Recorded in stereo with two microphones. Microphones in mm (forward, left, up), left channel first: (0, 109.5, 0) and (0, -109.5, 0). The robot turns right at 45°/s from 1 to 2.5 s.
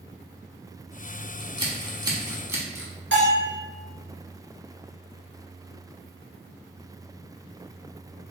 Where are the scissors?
20° right (ahead or behind), 0.8 m; by 2.9 s 15° right (ahead or behind), 0.8 m.